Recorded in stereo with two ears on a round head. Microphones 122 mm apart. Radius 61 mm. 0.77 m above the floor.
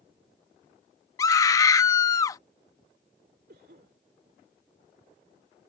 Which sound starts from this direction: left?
A scream, at 1.2 s.